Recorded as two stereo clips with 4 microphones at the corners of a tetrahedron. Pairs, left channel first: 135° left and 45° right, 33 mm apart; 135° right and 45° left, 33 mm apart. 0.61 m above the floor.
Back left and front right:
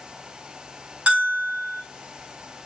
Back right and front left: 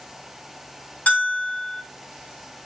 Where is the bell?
100° right, 1.6 m.